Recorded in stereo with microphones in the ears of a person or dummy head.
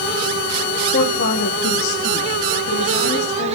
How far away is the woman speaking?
About 1.2 m.